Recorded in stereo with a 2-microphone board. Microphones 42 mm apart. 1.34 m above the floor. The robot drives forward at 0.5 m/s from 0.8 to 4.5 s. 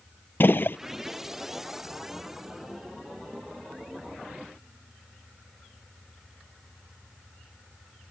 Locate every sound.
0.4 s a gunshot: 55° left (ahead or behind)